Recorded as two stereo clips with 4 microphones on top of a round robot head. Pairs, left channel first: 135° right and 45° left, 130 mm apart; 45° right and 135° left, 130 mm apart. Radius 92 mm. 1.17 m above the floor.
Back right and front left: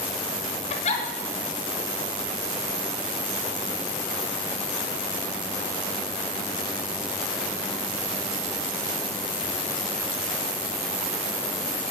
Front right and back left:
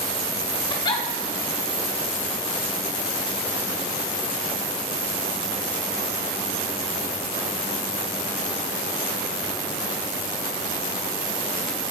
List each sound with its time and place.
0.7 s a giggle: 100° right, 0.9 m